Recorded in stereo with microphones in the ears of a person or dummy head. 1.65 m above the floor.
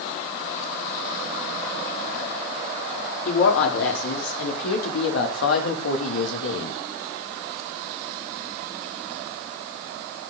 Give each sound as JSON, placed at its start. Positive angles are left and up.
{"t": 3.2, "sound": "a woman speaking", "side_deg": 80, "distance_m": 5.0}